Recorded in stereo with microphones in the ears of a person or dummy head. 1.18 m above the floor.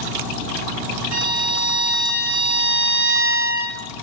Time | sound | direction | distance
1.1 | a violin | 80° right | 2 m